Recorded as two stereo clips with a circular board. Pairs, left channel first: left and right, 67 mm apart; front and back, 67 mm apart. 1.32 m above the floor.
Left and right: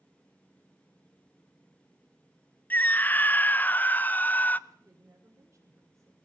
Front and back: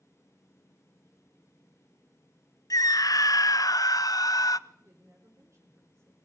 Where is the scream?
25° left, 1.0 m.